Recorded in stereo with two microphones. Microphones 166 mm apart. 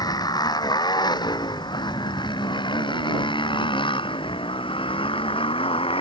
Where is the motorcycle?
25° left (ahead or behind); by 6.0 s 35° left (ahead or behind).